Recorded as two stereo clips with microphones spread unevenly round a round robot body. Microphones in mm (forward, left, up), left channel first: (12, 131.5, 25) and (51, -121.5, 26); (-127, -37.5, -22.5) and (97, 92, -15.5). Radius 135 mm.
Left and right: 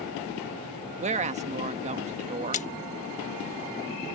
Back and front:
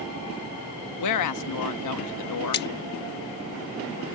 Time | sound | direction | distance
1.0 | a woman speaking | 145° right | ?
2.5 | a splash | 160° left | ?